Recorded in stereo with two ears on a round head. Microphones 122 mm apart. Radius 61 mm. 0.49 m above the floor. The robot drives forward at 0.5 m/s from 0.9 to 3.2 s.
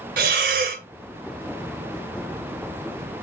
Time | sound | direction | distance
0.2 | breathing | 70° right (ahead or behind) | 0.9 m